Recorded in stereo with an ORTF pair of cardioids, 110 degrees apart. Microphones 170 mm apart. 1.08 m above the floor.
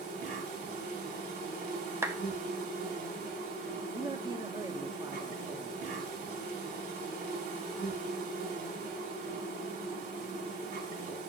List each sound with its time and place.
0.0 s an insect: 65° right, 5.5 m
2.0 s a clap: 15° right, 2.0 m
3.9 s a man speaking: 25° right, 1.9 m